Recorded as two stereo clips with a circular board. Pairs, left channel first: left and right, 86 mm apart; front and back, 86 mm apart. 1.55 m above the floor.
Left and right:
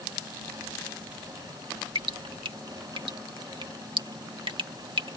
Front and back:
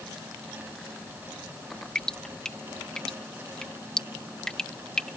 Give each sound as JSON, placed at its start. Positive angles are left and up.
{"t": 1.9, "sound": "dripping", "azimuth_deg": -80}